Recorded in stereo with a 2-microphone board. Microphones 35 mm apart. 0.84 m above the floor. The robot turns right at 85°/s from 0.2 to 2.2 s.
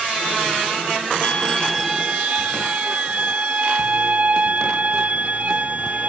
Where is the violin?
135° left; by 6.1 s 140° right.